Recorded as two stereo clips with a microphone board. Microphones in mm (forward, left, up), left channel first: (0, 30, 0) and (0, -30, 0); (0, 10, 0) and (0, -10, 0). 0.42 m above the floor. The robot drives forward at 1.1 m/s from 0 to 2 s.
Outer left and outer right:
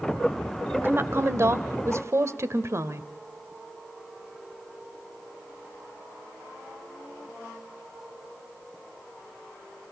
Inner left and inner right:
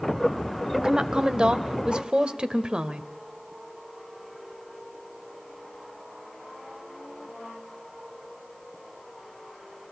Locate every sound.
0.7 s a woman speaking: 40° right (ahead or behind), 1.8 m; by 3.1 s 55° right (ahead or behind), 1.4 m